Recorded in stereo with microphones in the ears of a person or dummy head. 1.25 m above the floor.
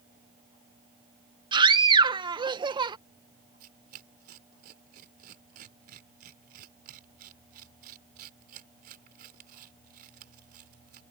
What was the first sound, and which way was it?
A scream, 20° right (ahead or behind).